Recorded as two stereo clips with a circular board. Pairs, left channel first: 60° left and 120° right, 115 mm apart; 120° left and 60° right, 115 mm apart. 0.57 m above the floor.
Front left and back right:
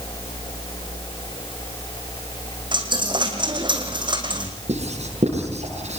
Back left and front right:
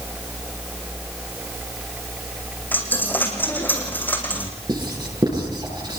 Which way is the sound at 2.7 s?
165° right.